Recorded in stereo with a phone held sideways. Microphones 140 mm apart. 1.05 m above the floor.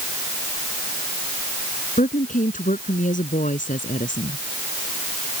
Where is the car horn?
No car horn in this recording.